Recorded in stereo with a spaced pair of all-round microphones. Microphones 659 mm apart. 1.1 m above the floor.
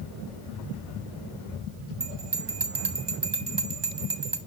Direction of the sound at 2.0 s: 40° right (ahead or behind).